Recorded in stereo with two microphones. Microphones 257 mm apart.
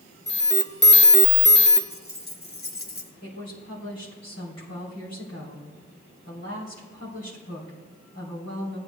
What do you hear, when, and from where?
0.3 s an alarm: 45° left (ahead or behind), 0.6 m
1.9 s keys jangling: 40° left (ahead or behind), 0.9 m
3.2 s a woman speaking: 75° left (ahead or behind), 3.5 m